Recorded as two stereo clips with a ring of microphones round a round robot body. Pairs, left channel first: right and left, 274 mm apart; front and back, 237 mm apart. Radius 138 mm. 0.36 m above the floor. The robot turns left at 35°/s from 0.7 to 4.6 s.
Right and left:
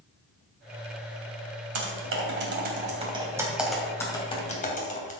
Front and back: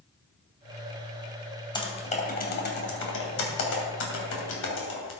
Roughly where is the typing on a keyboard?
Left.